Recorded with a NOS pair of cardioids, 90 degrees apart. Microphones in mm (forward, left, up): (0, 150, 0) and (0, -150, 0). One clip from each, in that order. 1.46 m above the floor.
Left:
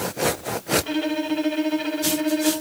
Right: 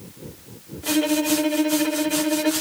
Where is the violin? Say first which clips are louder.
Right 3 dB; 10° right, 2.5 m.